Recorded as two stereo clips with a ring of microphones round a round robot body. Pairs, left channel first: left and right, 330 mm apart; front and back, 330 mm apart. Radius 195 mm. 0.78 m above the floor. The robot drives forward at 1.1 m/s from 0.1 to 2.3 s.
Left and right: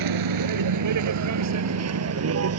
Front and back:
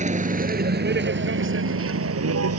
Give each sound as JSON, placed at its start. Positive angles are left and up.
{"t": 0.0, "sound": "a vehicle", "azimuth_deg": -110}